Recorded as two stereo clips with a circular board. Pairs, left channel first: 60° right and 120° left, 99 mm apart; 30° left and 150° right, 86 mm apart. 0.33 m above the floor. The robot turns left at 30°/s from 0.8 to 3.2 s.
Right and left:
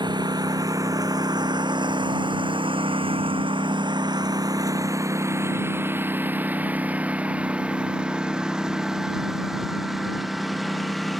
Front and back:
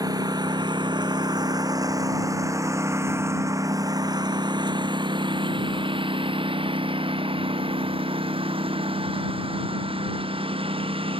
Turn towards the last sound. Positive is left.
turn(degrees=-150)